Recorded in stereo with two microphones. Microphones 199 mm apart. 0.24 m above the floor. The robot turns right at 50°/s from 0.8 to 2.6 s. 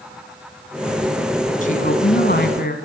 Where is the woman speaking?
50° left, 1.7 m; by 2.8 s 100° left, 1.7 m.